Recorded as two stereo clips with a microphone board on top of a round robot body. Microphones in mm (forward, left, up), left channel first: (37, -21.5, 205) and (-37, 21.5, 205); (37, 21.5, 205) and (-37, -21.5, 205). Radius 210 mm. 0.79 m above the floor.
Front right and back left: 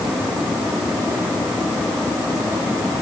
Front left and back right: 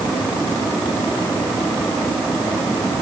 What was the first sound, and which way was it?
Only background noise.